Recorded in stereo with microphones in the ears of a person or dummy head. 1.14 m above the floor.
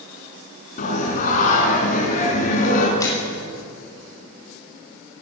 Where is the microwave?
20° left (ahead or behind), 6.5 m.